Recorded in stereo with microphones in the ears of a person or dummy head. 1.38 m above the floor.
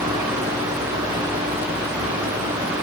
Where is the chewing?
No chewing in this recording.